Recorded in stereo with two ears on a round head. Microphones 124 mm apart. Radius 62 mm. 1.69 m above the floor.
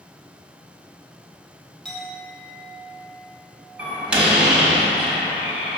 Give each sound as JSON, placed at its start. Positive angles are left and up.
{"t": 1.9, "sound": "a clink", "side_deg": 0, "distance_m": 1.7}
{"t": 3.8, "sound": "a door slam", "side_deg": -5, "distance_m": 1.4}